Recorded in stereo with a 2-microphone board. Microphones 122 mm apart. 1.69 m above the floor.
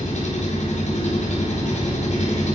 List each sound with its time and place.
0.0 s an engine running: 80° left, 4.5 m